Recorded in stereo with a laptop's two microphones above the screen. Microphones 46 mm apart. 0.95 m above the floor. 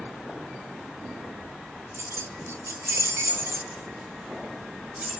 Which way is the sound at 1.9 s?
65° right (ahead or behind).